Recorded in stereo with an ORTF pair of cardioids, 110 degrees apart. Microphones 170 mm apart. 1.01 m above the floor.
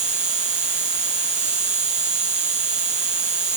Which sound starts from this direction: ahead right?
An insect, at 0.0 s.